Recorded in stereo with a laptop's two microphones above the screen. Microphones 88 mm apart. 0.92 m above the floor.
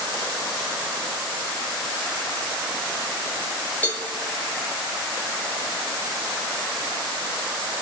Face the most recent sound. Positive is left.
turn(degrees=20)  # may be behind; listen again after turning